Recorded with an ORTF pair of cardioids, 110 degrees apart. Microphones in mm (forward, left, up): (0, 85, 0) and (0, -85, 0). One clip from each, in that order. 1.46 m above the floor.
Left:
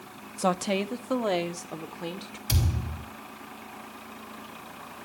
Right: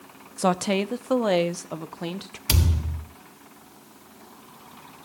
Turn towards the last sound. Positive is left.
turn(degrees=-55)